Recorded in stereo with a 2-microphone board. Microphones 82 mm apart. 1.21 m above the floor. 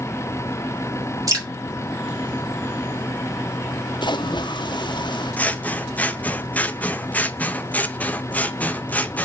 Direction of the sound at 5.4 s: 20° left (ahead or behind).